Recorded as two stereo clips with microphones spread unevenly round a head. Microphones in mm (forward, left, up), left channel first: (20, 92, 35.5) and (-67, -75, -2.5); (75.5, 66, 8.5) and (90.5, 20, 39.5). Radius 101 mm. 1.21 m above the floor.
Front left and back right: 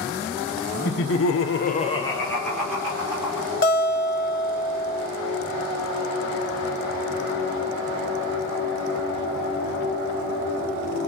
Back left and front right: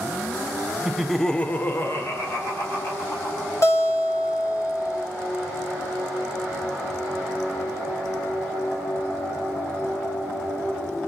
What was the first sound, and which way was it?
Laughter, 20° left.